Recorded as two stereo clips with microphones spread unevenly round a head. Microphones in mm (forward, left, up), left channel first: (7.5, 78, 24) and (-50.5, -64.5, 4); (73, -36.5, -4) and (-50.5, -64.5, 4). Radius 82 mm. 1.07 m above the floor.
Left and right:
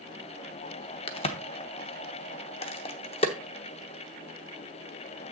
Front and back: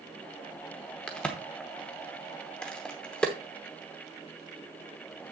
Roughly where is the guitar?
No guitar in this recording.